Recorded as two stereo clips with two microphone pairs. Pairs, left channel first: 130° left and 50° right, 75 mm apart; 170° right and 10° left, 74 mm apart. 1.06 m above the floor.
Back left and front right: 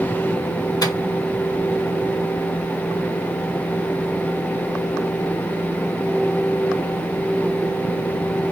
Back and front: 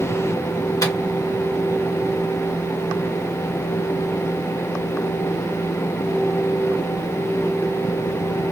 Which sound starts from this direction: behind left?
A microwave, at 0.8 s.